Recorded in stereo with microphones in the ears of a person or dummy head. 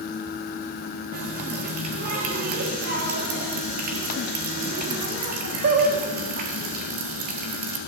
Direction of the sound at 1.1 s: 50° right (ahead or behind).